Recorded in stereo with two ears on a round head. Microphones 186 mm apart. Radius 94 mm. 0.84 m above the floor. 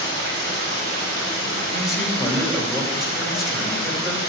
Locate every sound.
0.0 s running water: 70° right (ahead or behind), 5 m
1.7 s a man speaking: centre (ahead or behind), 2.5 m